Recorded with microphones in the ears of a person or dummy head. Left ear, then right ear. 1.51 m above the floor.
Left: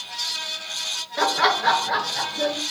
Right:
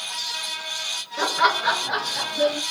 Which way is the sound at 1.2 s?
30° left (ahead or behind).